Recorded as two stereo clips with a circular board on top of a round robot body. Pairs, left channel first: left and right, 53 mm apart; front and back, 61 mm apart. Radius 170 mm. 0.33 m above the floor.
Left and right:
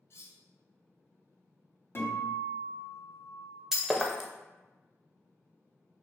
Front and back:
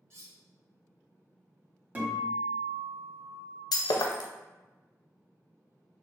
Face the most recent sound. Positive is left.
turn(degrees=-5)